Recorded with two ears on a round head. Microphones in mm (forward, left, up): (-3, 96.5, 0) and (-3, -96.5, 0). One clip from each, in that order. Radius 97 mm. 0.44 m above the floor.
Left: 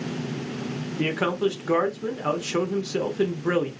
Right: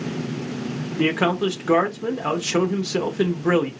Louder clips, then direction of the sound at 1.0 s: Right 4 dB; 5° right (ahead or behind).